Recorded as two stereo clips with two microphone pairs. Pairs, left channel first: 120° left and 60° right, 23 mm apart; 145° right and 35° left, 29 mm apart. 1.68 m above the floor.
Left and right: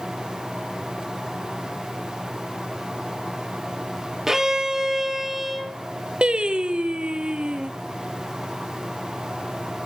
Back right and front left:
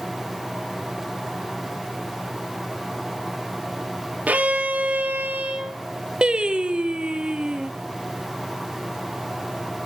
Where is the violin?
10° left, 1.3 m.